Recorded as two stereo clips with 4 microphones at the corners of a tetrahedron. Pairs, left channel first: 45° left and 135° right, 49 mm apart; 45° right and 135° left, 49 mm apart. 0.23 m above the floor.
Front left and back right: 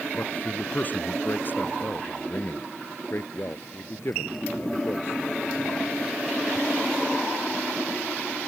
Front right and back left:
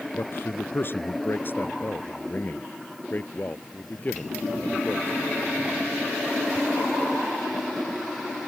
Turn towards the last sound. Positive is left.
turn(degrees=15)